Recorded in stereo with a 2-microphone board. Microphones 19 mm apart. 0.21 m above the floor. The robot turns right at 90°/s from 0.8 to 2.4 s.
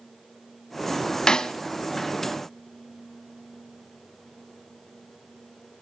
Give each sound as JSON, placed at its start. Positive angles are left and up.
{"t": 1.3, "sound": "a snare drum", "side_deg": 40, "distance_m": 0.9}